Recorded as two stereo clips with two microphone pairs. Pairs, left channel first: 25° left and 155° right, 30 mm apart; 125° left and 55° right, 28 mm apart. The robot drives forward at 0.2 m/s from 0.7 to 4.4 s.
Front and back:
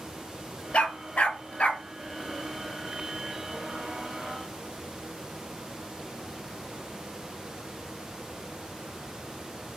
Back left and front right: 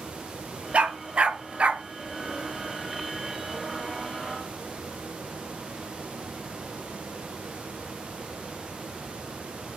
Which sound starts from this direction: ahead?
A dog barking, at 0.7 s.